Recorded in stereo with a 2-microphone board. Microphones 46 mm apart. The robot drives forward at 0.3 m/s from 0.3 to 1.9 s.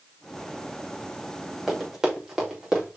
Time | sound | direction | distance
1.7 | running footsteps | 5° right (ahead or behind) | 4.5 m